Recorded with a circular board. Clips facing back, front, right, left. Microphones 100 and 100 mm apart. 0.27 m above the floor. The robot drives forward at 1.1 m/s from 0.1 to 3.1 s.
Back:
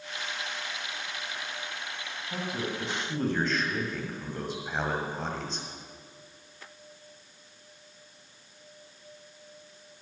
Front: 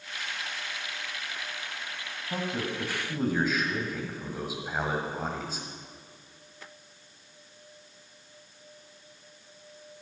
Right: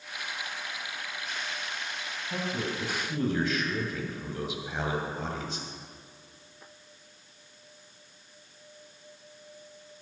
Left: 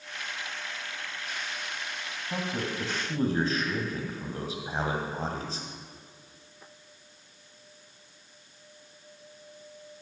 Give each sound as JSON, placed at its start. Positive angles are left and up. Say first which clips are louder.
{"t": 2.3, "sound": "a man speaking", "louder": "front 2 dB, even", "azimuth_deg": 45, "distance_m": 2.0}